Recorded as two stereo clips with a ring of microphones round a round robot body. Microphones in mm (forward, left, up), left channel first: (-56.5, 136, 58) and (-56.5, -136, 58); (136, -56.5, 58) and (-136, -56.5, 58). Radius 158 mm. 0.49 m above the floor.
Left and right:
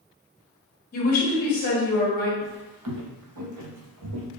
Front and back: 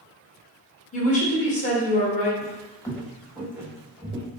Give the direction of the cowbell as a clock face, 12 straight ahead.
No cowbell in this recording.